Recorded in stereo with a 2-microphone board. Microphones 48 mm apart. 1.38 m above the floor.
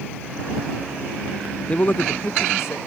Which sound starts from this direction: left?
A man speaking, at 1.7 s.